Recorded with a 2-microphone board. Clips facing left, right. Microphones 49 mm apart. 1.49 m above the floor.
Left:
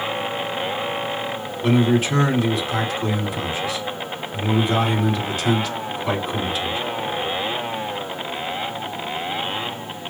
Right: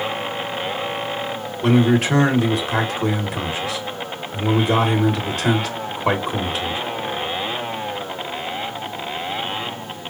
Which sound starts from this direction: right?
A man speaking, at 1.6 s.